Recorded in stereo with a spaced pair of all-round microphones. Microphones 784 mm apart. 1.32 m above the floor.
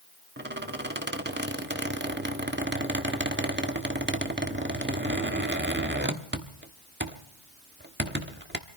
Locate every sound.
0.4 s a squeak: 15° right (ahead or behind), 1.1 m